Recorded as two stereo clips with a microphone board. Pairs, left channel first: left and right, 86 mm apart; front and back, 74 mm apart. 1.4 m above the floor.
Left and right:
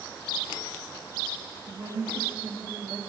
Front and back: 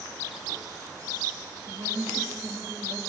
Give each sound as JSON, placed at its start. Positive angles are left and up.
{"t": 1.7, "sound": "a woman speaking", "azimuth_deg": -145, "distance_m": 2.5}